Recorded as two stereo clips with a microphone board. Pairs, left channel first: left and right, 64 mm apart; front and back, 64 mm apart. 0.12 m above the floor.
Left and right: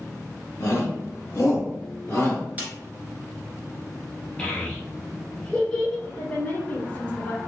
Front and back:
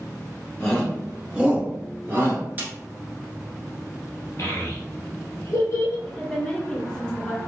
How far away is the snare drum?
About 1.5 m.